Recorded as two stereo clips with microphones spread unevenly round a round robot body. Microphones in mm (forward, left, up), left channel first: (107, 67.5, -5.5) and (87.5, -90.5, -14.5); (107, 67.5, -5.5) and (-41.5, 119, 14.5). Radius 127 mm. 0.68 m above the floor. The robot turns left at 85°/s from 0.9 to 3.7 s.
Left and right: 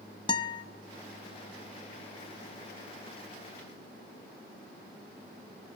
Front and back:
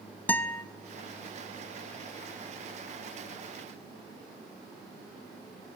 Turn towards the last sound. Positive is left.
turn(degrees=160)